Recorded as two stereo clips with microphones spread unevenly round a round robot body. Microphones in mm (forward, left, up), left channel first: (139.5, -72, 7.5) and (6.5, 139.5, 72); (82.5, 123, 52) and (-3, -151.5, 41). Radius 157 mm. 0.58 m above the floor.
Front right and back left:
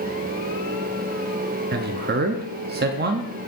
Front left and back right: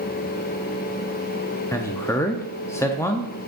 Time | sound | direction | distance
1.7 | a man speaking | 145° left | 0.6 m